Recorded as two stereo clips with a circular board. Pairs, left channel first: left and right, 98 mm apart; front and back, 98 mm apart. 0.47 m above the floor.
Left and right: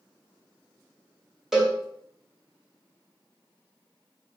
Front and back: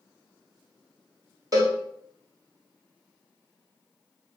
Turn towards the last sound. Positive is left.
turn(degrees=-175)